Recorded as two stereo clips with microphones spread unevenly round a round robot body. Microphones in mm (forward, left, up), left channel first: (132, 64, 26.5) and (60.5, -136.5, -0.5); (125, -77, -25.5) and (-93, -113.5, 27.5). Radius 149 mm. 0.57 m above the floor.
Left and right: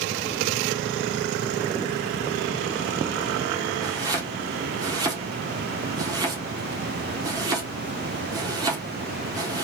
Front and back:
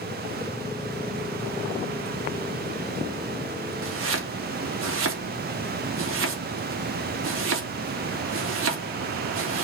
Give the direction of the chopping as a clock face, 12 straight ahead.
6 o'clock.